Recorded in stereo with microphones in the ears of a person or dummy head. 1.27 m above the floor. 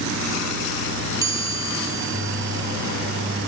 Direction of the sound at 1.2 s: 20° right (ahead or behind).